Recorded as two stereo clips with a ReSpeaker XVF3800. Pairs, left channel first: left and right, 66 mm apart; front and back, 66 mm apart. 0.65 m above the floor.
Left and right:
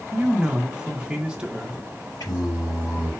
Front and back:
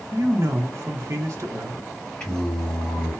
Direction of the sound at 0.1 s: 160° right.